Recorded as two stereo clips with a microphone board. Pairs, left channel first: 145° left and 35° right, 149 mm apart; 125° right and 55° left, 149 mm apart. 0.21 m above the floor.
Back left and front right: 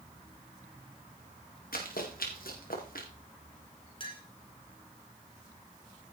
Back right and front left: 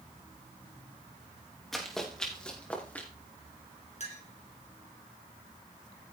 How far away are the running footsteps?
About 4 m.